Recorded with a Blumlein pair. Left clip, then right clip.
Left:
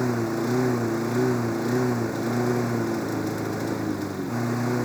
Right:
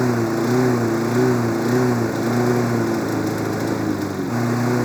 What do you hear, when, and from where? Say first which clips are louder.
0.0 s a lawn mower: right 6 dB; 15° right